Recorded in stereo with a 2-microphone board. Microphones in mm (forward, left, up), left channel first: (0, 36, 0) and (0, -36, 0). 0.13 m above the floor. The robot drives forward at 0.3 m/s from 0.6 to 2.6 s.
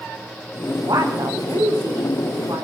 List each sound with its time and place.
0.8 s a woman speaking: 80° right, 8.5 m; by 2.6 s 75° right (ahead or behind), 8.5 m